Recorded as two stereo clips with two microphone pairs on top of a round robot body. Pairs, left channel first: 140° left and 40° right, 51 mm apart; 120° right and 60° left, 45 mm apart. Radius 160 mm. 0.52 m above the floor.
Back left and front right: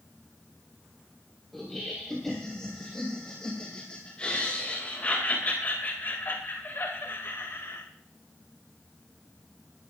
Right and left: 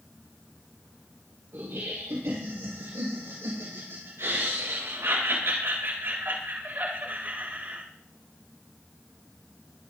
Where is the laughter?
50° left, 4 m; by 7.8 s 110° left, 3 m.